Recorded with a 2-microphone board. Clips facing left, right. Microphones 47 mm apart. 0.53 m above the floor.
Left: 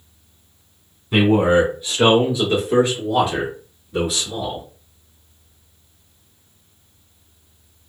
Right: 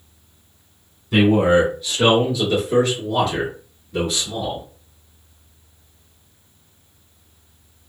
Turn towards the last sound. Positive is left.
turn(degrees=0)  # may be behind; listen again after turning